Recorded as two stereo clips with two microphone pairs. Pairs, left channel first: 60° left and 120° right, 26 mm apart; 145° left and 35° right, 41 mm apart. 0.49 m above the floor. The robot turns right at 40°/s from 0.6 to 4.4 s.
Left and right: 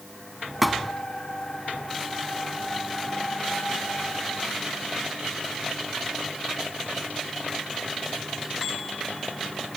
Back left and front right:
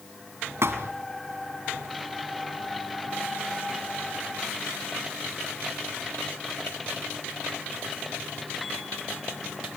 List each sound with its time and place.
0.6 s a thud: 35° right, 1.6 m; by 0.9 s 20° right, 1.6 m